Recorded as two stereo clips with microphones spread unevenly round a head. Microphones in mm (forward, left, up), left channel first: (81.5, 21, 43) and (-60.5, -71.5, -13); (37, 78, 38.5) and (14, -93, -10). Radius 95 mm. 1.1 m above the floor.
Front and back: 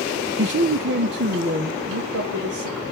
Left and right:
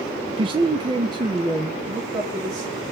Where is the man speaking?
160° right, 0.9 m; by 2.8 s 170° right, 2.5 m.